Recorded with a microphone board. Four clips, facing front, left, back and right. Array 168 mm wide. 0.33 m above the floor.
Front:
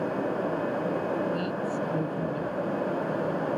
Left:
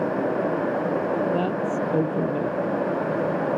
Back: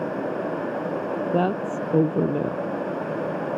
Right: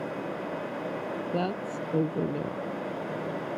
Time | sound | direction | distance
1.3 | a woman speaking | 170° left | ?